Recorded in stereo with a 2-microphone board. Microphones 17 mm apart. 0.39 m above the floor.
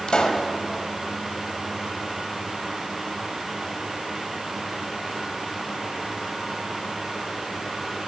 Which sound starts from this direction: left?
A pop, at 0.1 s.